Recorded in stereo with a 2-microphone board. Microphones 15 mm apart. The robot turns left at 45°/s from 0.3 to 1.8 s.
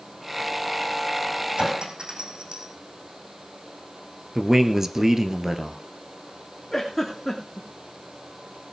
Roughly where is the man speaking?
Right.